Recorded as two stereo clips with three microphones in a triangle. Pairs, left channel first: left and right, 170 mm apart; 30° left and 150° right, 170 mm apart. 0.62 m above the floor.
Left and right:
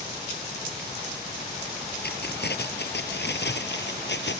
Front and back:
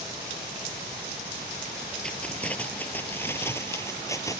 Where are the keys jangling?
115° left; by 4.4 s 100° left.